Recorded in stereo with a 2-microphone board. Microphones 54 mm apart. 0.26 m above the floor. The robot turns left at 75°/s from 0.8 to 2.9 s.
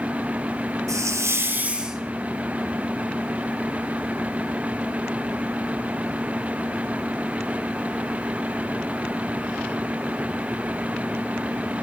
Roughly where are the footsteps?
I don't hear footsteps.